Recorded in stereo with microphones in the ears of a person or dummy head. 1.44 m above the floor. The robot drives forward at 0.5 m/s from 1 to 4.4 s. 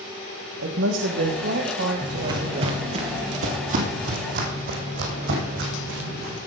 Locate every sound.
0.6 s a woman speaking: 80° right, 1.6 m; by 2.8 s 50° right (ahead or behind), 2.0 m
2.0 s footsteps: 20° right (ahead or behind), 1.6 m; by 6.3 s 65° right (ahead or behind), 6.5 m